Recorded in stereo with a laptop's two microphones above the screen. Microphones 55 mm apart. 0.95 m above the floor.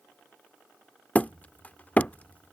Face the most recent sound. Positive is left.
turn(degrees=25)  # may be behind; listen again after turning